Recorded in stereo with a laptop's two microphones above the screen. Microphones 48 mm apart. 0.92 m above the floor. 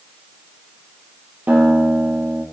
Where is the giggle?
No giggle in this recording.